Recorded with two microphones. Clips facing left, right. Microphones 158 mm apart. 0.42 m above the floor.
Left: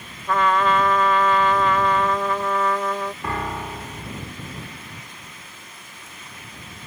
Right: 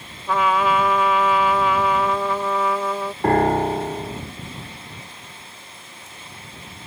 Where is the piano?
55° right (ahead or behind).